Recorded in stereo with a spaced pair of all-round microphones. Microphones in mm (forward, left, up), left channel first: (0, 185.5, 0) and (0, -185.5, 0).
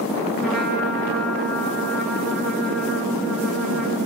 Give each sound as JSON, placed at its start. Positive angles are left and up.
{"t": 0.4, "sound": "a trumpet", "side_deg": 0, "distance_m": 3.0}